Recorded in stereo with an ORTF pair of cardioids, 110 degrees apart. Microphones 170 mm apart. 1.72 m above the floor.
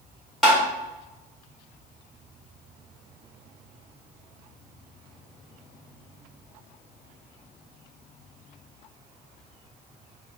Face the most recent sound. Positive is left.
turn(degrees=0)